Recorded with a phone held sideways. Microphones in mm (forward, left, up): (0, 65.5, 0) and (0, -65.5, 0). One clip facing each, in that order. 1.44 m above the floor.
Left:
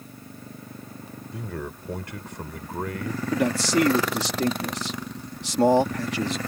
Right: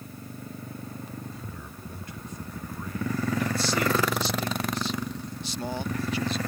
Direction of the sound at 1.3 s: 70° left (ahead or behind).